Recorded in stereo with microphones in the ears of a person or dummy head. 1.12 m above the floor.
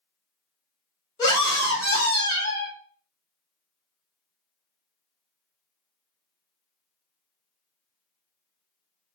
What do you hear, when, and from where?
1.2 s a scream: 25° left (ahead or behind), 1.0 m